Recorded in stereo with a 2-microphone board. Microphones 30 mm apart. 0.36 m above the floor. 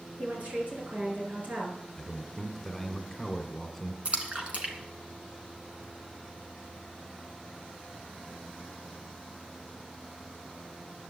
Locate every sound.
0.2 s a woman speaking: 50° right (ahead or behind), 5.5 m
2.0 s a man speaking: centre (ahead or behind), 1.6 m
4.0 s a splash: 35° right (ahead or behind), 2 m